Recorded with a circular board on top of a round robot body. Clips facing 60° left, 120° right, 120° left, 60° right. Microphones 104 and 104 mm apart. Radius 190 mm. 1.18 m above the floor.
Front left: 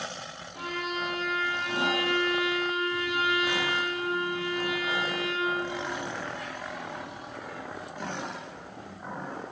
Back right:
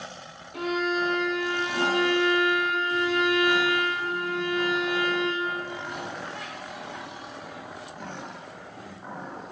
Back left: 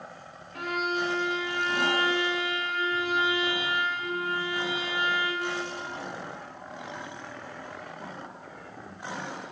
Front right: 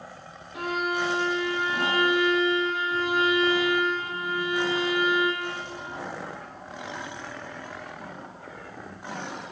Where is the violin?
140° right, 1.3 m.